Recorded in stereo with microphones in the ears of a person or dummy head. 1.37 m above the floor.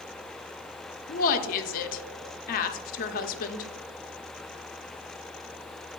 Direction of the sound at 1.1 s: 45° left (ahead or behind).